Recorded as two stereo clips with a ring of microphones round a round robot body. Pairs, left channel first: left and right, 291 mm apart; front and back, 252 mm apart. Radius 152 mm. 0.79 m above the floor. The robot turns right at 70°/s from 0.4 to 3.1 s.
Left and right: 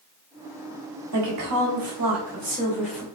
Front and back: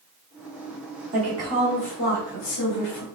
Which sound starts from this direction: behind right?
A woman speaking, at 1.1 s.